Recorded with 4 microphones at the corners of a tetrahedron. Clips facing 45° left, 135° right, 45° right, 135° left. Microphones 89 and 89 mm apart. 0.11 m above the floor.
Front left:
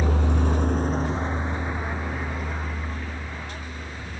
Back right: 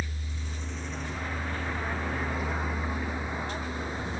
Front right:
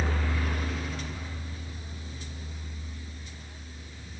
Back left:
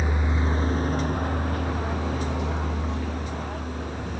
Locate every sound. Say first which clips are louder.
0.0 s a vehicle: front left 15 dB, back left 4 dB; 55° left; by 4.2 s 155° left